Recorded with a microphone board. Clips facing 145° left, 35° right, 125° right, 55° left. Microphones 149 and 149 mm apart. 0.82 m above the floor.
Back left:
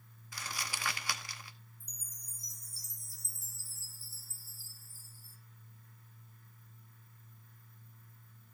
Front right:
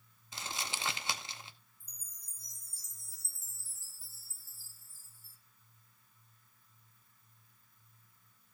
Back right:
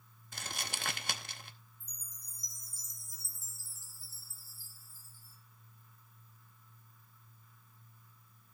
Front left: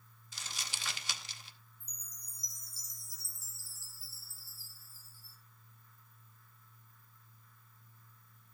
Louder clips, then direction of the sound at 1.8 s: Back left 9 dB, back right 1 dB; 160° right.